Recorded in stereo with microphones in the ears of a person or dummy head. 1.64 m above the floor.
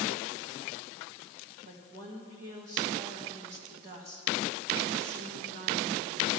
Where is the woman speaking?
45° right (ahead or behind), 2 m.